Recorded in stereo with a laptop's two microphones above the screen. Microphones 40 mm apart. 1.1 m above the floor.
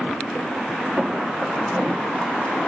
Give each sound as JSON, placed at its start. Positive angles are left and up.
{"t": 1.0, "sound": "footsteps", "side_deg": -45, "distance_m": 6.0}